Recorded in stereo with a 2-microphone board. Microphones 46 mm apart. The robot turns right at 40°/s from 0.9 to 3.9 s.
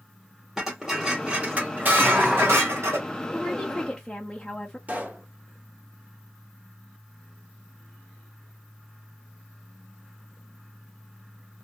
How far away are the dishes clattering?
About 2 m.